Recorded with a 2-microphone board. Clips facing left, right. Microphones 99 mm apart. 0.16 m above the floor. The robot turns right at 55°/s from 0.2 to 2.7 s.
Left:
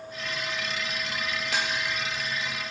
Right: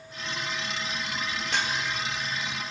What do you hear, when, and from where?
1.5 s dishes clattering: centre (ahead or behind), 3.5 m; by 1.7 s 15° left (ahead or behind), 3.5 m